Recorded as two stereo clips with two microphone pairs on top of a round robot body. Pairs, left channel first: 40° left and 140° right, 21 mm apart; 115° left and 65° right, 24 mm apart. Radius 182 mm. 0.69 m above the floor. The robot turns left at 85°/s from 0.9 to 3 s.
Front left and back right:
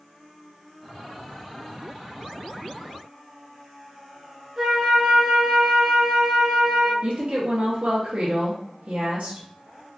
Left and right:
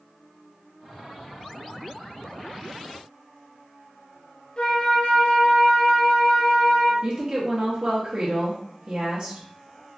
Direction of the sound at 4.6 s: 155° left.